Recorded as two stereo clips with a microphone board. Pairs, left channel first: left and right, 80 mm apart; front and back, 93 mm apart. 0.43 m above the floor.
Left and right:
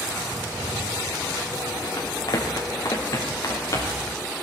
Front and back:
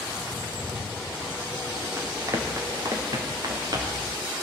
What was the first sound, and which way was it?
Running footsteps, 120° left.